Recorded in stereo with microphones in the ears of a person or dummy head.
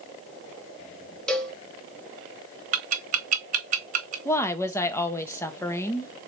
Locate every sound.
1.3 s a cowbell: 5° left (ahead or behind), 0.7 m
2.7 s ticking: 45° right (ahead or behind), 0.7 m
4.2 s a woman speaking: 15° left (ahead or behind), 0.7 m